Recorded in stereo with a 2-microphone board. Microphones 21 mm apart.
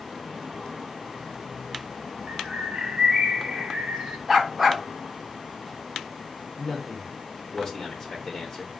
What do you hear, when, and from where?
2.3 s a bird: 65° right (ahead or behind), 1.8 m
4.3 s a dog barking: 15° right (ahead or behind), 0.9 m
6.6 s a man speaking: 5° left (ahead or behind), 0.7 m